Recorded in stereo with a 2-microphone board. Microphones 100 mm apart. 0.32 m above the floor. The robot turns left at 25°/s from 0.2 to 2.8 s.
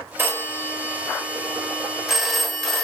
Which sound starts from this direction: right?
A phone ringing, at 0.2 s.